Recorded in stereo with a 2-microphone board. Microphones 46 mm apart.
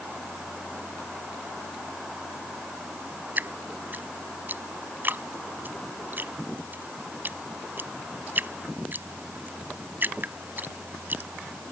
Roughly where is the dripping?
Right.